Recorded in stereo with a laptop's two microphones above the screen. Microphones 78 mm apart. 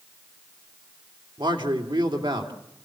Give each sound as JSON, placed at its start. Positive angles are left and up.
{"t": 1.4, "sound": "a man speaking", "side_deg": -80, "distance_m": 2.5}